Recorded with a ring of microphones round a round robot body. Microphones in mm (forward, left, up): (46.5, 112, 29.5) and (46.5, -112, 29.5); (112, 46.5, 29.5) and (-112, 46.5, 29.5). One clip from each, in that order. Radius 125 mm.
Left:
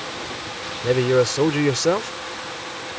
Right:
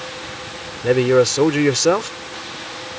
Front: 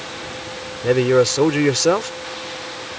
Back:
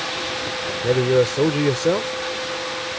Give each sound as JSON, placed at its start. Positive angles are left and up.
{"t": 0.8, "sound": "a man speaking", "azimuth_deg": -35}